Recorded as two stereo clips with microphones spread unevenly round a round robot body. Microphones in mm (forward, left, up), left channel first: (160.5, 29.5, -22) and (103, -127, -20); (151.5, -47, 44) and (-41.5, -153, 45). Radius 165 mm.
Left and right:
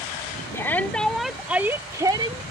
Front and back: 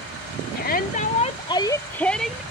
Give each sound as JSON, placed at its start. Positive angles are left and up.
{"t": 0.5, "sound": "a shout", "azimuth_deg": 0}